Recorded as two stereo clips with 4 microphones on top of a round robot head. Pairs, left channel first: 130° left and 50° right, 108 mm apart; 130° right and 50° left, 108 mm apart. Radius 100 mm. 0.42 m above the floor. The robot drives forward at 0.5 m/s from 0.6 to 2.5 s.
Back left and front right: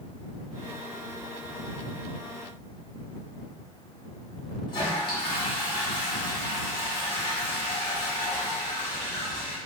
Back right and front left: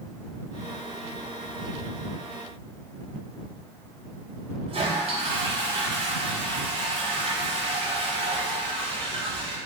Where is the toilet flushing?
85° left, 1.0 m.